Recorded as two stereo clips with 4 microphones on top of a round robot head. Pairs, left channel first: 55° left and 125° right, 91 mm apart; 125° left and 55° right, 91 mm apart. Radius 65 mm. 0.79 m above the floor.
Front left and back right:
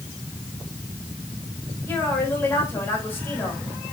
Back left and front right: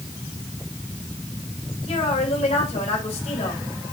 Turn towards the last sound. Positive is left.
turn(degrees=125)